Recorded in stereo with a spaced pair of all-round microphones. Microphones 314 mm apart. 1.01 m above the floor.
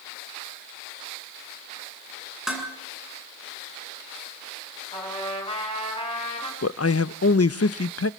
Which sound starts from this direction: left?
A man speaking, at 6.6 s.